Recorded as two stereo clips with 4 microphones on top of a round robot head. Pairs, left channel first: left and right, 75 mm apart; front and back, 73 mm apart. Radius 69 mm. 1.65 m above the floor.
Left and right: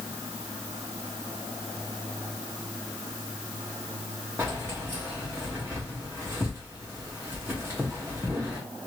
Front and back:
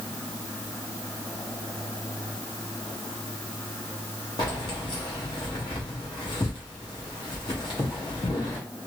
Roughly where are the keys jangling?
Ahead.